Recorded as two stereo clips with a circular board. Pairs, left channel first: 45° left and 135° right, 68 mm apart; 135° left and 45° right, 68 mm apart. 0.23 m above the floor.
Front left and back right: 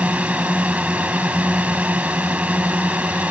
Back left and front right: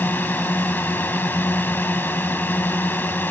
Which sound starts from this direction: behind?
A drone, at 0.0 s.